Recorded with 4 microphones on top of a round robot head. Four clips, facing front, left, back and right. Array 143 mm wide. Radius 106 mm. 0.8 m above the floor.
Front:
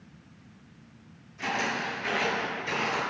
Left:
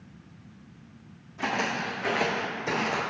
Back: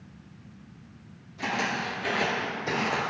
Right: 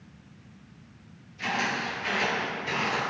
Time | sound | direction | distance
1.4 | footsteps | 115° left | 2.5 m